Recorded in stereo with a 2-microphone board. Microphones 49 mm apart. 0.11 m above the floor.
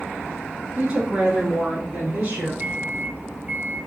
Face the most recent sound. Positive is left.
turn(degrees=-40)  # may be behind; listen again after turning